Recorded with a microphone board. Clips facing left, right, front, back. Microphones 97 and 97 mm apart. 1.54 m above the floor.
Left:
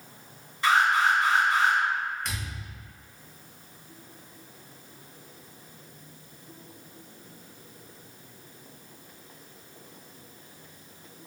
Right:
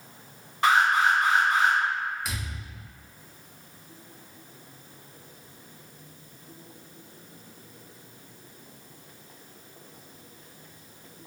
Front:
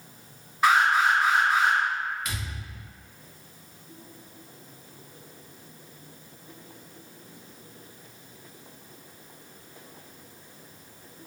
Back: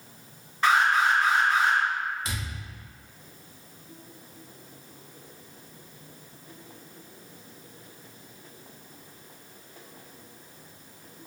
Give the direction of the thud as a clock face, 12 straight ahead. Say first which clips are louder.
Even, even; 6 o'clock.